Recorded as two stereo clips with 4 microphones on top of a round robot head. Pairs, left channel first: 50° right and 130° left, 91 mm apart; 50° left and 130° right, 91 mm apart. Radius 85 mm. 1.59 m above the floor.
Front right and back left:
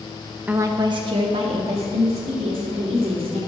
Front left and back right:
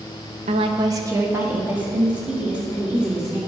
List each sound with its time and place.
0.5 s a woman speaking: 150° right, 0.6 m; by 3.4 s 145° left, 4 m